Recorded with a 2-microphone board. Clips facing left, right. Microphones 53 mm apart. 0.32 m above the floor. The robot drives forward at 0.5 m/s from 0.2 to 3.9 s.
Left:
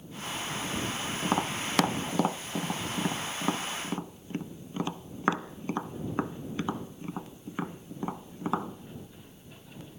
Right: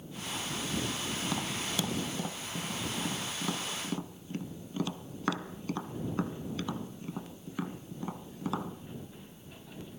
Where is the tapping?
45° left (ahead or behind), 0.7 m; by 8.7 s 30° left (ahead or behind), 1.0 m.